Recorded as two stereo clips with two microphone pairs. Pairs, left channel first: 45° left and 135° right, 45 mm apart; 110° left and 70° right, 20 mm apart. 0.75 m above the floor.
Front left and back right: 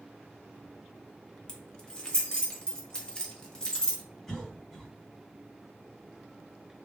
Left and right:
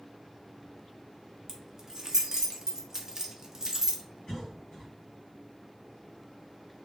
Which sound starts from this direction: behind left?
A cough, at 4.3 s.